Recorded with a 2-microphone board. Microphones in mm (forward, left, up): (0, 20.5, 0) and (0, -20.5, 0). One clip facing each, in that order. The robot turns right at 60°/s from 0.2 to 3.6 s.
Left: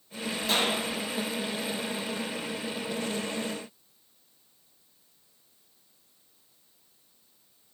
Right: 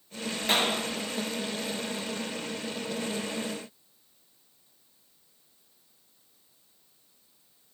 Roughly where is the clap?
Right.